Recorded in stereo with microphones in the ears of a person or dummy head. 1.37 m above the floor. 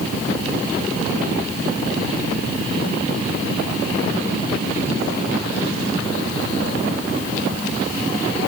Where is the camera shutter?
No camera shutter in this recording.